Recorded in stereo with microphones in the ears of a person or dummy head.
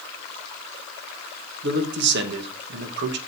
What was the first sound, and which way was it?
A man speaking, 55° right (ahead or behind).